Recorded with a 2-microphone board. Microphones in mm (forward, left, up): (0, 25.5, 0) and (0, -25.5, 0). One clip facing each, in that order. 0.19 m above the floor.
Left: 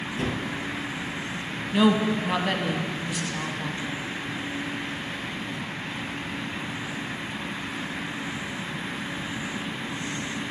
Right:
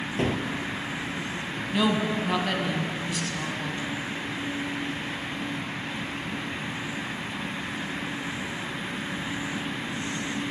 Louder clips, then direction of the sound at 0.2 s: Right 3 dB; 40° right (ahead or behind).